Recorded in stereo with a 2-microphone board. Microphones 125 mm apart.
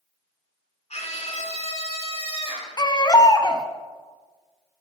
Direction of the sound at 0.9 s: 60° left (ahead or behind).